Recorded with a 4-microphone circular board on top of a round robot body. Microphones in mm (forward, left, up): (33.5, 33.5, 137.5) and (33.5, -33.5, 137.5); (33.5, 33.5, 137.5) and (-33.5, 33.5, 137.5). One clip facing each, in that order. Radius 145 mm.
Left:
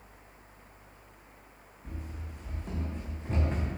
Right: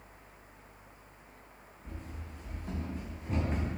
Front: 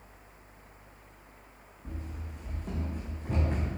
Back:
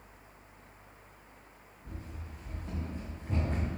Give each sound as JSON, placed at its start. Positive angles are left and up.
{"t": 1.9, "sound": "running footsteps", "azimuth_deg": 10, "distance_m": 2.5}